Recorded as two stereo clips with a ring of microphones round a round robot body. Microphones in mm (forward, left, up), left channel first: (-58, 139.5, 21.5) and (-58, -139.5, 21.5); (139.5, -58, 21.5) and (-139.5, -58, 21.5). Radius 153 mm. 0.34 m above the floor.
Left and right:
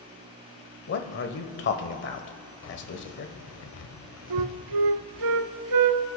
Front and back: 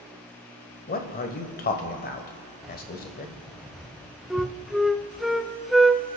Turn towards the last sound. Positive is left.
turn(degrees=-90)